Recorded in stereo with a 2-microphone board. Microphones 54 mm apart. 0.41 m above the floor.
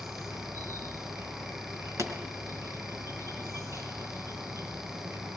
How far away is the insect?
About 5 m.